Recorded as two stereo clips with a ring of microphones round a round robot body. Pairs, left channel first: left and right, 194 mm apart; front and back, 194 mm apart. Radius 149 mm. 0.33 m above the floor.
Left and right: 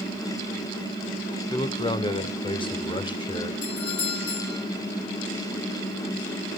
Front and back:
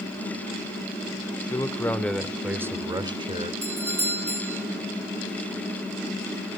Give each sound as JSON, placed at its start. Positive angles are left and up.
{"t": 1.5, "sound": "a man speaking", "azimuth_deg": 55, "distance_m": 1.4}
{"t": 3.6, "sound": "a doorbell", "azimuth_deg": 105, "distance_m": 4.0}